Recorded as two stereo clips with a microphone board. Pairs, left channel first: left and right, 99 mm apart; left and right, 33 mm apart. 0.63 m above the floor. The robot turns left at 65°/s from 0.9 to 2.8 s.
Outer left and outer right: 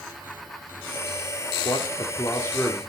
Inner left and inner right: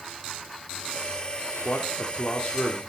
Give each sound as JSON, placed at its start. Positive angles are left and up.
{"t": 1.6, "sound": "a man speaking", "azimuth_deg": 85, "distance_m": 1.4}